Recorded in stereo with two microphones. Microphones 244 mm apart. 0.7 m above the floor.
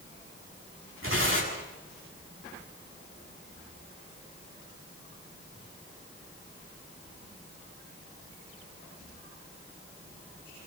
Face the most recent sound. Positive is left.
turn(degrees=-55)  # may be behind; listen again after turning